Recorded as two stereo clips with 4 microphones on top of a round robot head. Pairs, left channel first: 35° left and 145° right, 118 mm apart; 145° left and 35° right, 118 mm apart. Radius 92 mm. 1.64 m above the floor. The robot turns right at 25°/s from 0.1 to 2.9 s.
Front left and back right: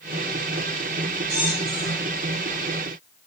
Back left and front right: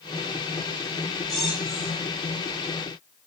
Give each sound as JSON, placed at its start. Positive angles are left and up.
{"t": 1.3, "sound": "a squeak", "azimuth_deg": -125, "distance_m": 4.5}